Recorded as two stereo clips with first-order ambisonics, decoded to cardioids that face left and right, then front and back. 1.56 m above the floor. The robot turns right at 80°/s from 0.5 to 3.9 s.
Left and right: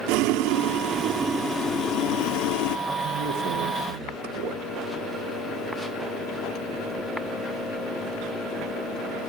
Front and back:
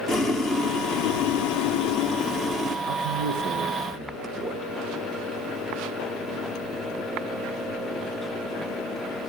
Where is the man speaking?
Straight behind, 1.8 m; by 4.6 s 100° right, 1.8 m.